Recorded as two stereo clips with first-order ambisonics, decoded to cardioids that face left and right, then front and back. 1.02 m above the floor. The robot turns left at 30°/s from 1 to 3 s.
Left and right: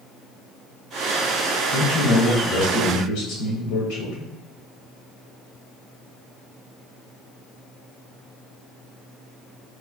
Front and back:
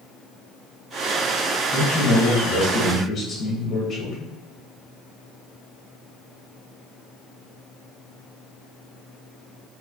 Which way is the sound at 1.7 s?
105° left.